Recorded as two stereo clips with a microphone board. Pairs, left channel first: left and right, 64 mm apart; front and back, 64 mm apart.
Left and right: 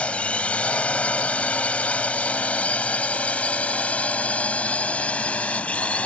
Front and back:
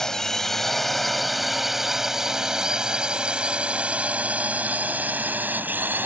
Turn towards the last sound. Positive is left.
turn(degrees=145)